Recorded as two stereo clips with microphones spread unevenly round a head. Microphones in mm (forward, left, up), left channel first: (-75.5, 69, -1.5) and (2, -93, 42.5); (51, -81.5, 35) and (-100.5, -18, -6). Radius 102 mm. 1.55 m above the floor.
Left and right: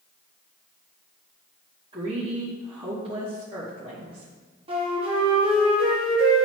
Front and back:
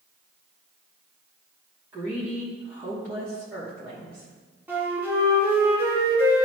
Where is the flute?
120° right, 2.0 m.